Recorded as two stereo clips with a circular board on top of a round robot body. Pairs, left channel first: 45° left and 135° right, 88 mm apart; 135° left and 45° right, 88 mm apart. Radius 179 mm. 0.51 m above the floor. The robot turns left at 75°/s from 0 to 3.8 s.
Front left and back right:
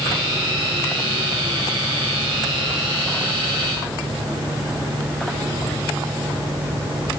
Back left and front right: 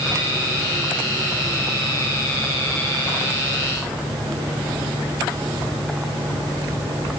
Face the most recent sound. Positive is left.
No sound to turn to.